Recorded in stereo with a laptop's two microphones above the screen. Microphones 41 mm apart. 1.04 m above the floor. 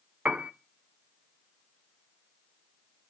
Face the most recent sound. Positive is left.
turn(degrees=-35)  # may be behind; listen again after turning